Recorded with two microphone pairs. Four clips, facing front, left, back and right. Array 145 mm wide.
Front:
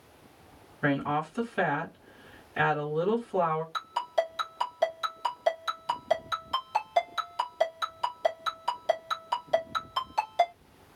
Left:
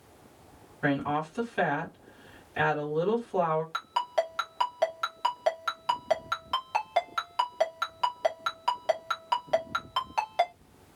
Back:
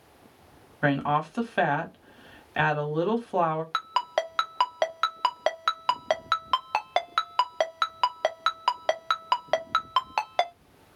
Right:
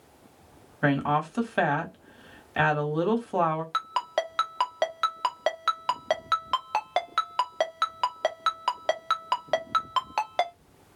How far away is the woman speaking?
About 1.3 m.